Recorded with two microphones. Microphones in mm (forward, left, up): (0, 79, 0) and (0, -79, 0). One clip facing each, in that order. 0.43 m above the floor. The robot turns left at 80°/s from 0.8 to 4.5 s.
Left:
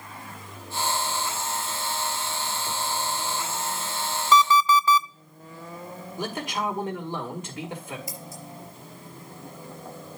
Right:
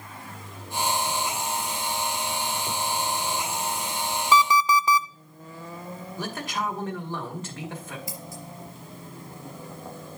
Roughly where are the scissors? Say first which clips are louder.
Right 1 dB; right.